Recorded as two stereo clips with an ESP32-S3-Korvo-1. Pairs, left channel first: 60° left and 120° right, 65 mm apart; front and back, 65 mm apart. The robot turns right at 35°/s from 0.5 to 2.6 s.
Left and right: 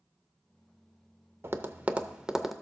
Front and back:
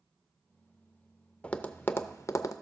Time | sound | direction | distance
1.4 | tapping | 70° right | 0.6 m